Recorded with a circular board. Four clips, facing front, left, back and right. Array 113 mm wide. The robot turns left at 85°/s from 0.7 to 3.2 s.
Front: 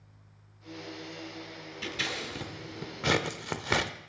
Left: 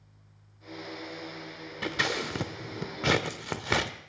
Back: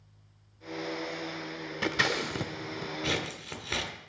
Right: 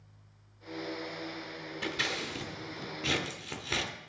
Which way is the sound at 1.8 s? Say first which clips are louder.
Left 6 dB, back 7 dB; 165° left.